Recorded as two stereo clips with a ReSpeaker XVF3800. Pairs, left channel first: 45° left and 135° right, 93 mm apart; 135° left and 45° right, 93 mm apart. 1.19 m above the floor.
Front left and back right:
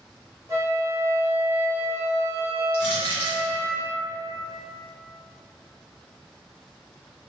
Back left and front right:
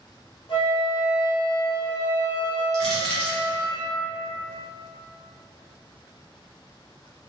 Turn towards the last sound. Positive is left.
turn(degrees=50)